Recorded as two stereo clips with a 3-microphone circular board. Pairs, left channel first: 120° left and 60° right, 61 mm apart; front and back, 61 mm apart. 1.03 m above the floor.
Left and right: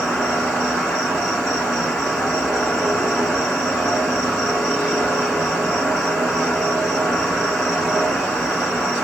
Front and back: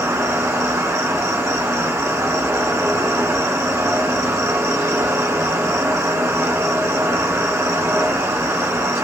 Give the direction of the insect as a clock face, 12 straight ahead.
5 o'clock.